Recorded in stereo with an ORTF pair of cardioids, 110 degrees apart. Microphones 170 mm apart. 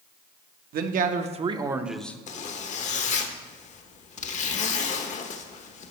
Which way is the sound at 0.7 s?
60° right.